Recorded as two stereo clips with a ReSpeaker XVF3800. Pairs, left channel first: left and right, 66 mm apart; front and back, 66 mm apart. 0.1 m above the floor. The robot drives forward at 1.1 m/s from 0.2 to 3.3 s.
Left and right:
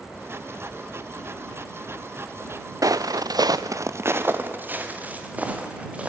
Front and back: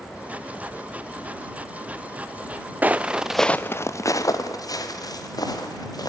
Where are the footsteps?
110° right, 0.6 m; by 6.1 s 20° right, 4 m.